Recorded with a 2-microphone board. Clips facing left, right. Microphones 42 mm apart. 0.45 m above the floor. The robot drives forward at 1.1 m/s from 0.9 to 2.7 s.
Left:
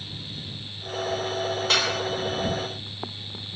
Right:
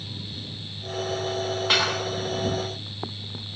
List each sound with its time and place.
1.7 s dishes clattering: 15° right (ahead or behind), 10 m; by 2.0 s 10° right (ahead or behind), 10 m